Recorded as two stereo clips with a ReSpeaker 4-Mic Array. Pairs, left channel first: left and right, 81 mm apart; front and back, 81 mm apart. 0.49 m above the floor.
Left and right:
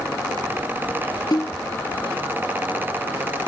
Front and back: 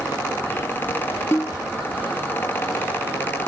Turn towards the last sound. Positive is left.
turn(degrees=60)